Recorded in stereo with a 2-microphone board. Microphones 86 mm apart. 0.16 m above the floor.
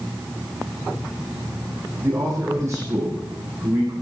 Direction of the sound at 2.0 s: 30° right (ahead or behind).